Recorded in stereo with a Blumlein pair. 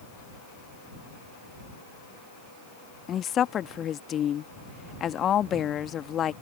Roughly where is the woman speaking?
Ahead left.